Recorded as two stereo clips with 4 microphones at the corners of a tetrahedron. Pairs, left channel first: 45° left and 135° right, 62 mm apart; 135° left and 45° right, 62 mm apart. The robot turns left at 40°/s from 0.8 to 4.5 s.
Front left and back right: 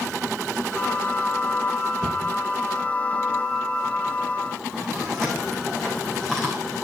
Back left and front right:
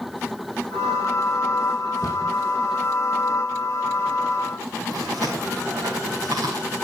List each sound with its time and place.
2.0 s a cupboard door: 120° left, 4.5 m; by 2.3 s 105° left, 4.5 m
4.9 s chewing: 35° right, 5.5 m